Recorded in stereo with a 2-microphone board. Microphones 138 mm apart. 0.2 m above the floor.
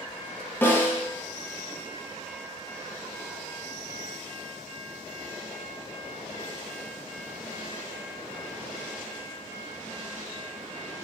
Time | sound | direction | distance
0.6 | a snare drum | 15° left (ahead or behind) | 2.0 m